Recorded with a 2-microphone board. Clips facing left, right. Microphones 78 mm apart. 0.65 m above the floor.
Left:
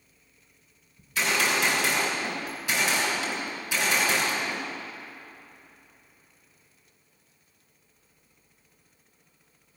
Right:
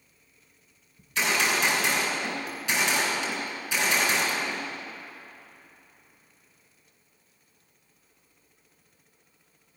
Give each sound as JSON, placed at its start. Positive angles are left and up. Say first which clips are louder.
{"t": 1.0, "sound": "a gunshot", "louder": "even", "side_deg": 5, "distance_m": 5.5}